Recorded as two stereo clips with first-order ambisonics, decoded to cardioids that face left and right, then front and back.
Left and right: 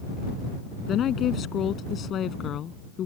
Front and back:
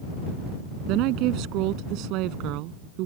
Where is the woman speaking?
150° left.